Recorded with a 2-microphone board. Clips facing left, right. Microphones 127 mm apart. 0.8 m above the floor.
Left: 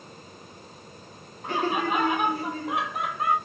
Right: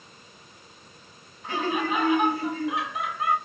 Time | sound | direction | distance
1.4 | laughter | 55° left (ahead or behind) | 2 m